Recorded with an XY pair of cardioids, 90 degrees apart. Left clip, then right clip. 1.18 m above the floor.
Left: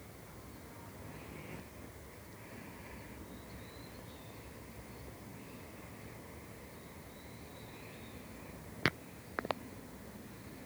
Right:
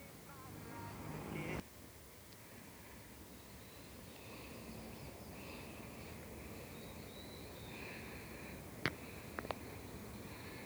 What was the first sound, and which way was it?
Only background noise.